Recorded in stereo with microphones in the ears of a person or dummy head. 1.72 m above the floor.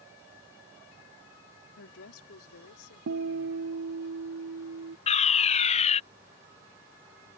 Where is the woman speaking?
75° left (ahead or behind); by 4.1 s 85° left.